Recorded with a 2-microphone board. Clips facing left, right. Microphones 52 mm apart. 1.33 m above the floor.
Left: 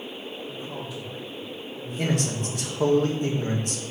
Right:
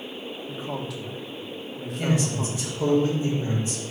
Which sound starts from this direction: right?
A man speaking, at 0.5 s.